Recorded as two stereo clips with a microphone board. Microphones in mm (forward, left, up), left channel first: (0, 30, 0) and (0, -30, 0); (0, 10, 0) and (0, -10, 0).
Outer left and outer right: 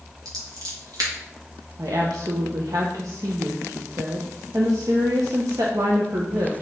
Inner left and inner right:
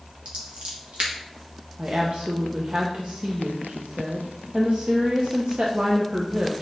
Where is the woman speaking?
65° right (ahead or behind), 0.8 m.